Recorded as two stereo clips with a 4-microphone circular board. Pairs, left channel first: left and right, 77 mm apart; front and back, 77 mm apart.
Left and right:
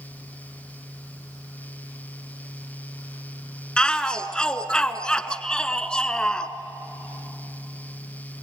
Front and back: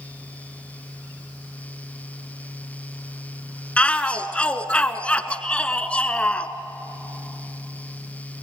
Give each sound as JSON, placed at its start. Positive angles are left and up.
{"t": 3.8, "sound": "a shout", "azimuth_deg": 40, "distance_m": 1.1}